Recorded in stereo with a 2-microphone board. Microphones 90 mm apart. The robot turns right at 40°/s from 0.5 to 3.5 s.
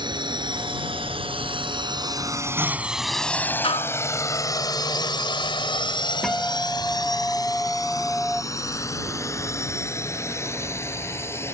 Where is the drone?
55° right (ahead or behind); by 11.6 s 30° left (ahead or behind).